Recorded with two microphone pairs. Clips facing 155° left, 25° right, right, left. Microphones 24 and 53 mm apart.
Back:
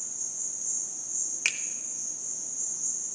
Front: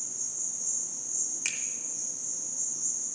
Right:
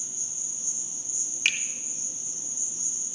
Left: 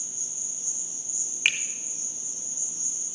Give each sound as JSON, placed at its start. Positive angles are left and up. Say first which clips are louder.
{"t": 0.0, "sound": "an insect", "louder": "even, even", "azimuth_deg": 15, "distance_m": 7.0}
{"t": 1.4, "sound": "a finger snap", "louder": "back 7 dB, left 2 dB", "azimuth_deg": 140, "distance_m": 0.7}